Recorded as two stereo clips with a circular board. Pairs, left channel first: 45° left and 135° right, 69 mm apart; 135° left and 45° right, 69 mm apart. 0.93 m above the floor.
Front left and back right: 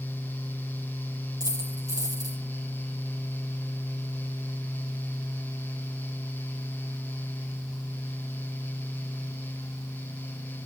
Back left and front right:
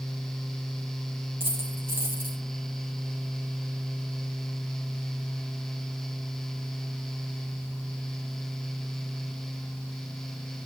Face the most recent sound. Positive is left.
turn(degrees=-105)